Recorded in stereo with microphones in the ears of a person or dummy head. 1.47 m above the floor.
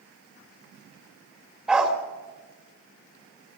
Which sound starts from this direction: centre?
A dog barking, at 1.7 s.